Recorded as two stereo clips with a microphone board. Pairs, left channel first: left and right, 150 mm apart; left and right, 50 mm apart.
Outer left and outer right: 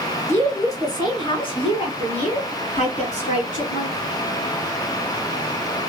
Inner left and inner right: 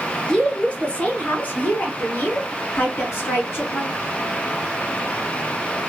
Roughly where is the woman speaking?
Centre.